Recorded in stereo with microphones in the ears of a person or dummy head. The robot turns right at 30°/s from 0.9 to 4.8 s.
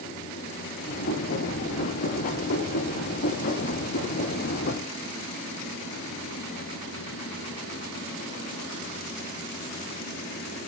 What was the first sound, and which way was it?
Only background noise.